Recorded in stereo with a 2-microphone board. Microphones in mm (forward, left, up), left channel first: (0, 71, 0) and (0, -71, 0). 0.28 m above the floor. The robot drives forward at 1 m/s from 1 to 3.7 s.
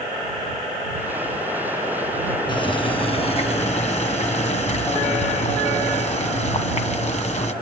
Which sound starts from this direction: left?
Boiling, at 2.5 s.